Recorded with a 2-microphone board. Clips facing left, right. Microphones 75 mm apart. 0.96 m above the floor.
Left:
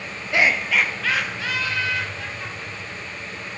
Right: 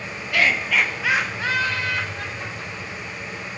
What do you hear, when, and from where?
0.3 s laughter: 25° left (ahead or behind), 0.6 m; by 3.1 s 55° right (ahead or behind), 1.5 m